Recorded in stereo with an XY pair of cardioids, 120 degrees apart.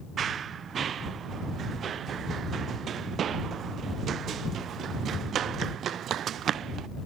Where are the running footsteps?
45° right; by 6.9 s 55° right.